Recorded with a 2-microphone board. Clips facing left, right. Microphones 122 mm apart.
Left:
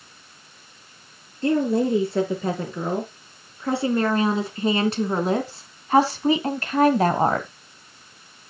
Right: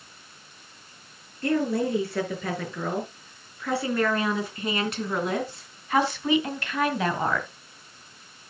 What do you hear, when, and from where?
1.4 s a woman speaking: 25° left (ahead or behind), 5.5 m; by 7.5 s 40° left (ahead or behind), 1.6 m